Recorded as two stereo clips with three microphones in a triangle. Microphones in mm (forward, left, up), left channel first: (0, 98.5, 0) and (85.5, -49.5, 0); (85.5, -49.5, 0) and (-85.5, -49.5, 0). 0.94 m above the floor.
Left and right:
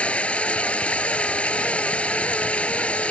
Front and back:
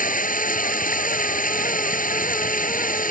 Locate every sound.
0.0 s running water: 35° left